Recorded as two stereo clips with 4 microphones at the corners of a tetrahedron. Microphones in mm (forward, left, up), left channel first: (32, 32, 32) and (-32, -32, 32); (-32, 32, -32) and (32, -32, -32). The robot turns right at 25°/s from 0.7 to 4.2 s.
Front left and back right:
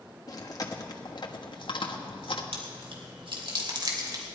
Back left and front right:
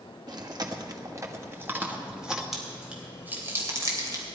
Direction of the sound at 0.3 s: Straight ahead.